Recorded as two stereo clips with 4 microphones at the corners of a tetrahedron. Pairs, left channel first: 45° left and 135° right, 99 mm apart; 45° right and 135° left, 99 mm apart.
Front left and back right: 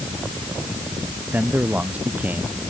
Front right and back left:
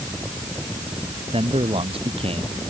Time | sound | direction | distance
1.3 | a man speaking | 150° left | ?